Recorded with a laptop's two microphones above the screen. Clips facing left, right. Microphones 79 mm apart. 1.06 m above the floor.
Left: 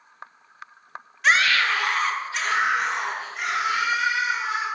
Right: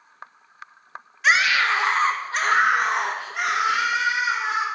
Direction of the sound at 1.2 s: 5° right (ahead or behind).